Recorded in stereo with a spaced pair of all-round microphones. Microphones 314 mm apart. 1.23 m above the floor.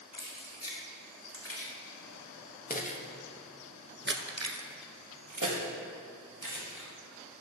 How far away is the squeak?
No squeak in this recording.